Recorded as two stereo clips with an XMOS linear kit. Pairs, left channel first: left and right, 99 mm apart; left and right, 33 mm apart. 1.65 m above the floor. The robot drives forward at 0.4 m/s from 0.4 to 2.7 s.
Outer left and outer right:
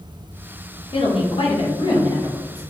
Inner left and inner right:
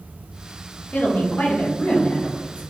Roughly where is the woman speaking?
Left.